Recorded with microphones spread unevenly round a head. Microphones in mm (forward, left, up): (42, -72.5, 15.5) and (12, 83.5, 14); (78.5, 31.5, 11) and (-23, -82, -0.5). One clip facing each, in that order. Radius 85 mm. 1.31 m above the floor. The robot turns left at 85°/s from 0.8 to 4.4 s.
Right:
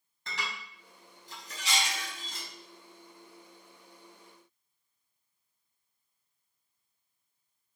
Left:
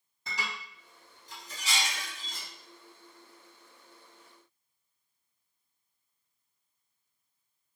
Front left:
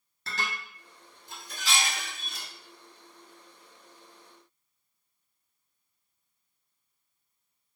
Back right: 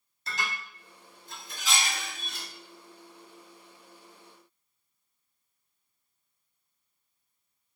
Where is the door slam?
No door slam in this recording.